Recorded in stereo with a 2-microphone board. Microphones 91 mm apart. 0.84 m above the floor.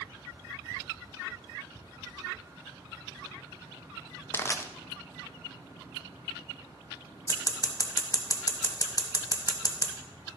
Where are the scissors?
40° left (ahead or behind), 1.2 m.